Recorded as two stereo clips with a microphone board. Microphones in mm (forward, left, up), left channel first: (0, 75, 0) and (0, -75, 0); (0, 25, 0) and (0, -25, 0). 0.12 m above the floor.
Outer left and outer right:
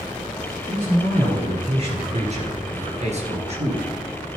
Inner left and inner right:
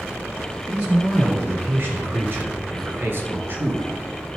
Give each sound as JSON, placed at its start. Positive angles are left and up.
{"t": 0.7, "sound": "a man speaking", "side_deg": -30, "distance_m": 3.5}